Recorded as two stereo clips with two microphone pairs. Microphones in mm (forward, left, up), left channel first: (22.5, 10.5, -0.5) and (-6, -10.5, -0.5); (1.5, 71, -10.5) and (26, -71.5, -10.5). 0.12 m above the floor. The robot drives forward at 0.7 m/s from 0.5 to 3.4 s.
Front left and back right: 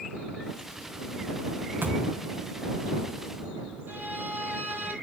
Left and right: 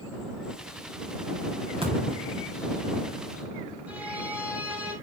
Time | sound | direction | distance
1.8 | a thud | 130° right | 7 m
3.9 | a violin | 160° right | 2 m